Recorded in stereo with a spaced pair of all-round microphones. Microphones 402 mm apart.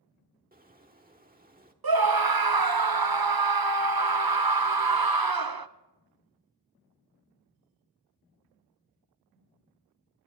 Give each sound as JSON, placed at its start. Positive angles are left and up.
{"t": 0.5, "sound": "a bird", "side_deg": -20, "distance_m": 1.3}
{"t": 1.8, "sound": "a scream", "side_deg": -60, "distance_m": 0.8}